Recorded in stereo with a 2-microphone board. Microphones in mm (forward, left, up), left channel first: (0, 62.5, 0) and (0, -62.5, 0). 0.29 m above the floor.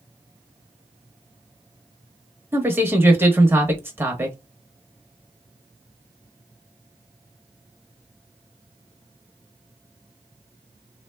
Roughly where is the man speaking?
Centre.